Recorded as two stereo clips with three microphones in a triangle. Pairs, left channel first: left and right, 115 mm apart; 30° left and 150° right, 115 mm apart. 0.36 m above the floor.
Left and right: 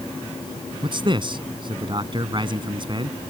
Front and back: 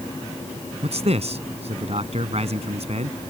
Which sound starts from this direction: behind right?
A man speaking, at 0.8 s.